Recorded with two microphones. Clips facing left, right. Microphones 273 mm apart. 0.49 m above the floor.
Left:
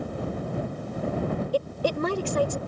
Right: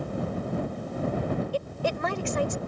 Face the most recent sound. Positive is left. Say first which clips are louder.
# left 4 dB
turn(degrees=40)  # may be behind; listen again after turning